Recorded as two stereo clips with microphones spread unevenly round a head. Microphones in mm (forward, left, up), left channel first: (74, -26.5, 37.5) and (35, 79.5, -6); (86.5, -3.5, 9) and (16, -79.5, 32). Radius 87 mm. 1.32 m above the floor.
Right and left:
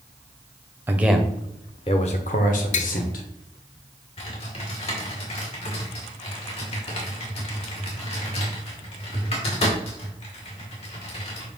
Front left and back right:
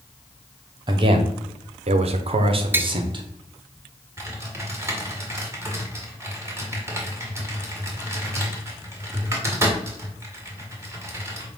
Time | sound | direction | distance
0.9 | a man speaking | 165° left | 0.8 m
2.7 | tapping | 60° right | 0.7 m
4.2 | typing on a keyboard | 75° right | 2 m